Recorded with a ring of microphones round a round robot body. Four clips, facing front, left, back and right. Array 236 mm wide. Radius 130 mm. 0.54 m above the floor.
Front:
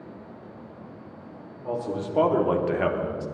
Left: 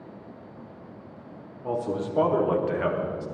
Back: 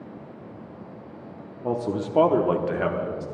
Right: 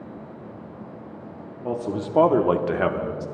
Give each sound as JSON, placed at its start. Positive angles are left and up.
{"t": 1.6, "sound": "a man speaking", "azimuth_deg": -160, "distance_m": 1.1}